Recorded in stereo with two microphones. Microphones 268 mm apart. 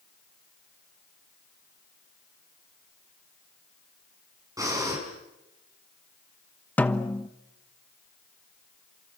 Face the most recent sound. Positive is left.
turn(degrees=5)  # may be behind; listen again after turning